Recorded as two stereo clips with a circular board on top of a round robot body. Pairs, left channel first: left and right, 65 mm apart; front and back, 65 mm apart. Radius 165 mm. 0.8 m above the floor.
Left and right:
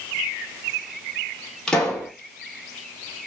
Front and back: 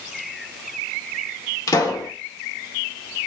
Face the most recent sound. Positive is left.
turn(degrees=10)